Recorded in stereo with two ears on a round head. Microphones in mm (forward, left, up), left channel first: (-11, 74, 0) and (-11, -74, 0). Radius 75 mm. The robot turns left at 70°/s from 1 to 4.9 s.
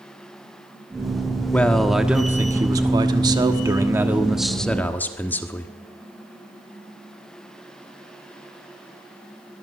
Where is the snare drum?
I don't hear a snare drum.